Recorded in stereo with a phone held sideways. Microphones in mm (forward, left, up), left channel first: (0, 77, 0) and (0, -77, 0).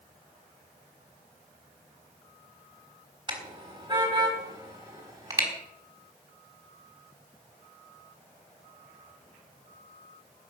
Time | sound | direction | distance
3.3 | a car horn | 30° right (ahead or behind) | 4 m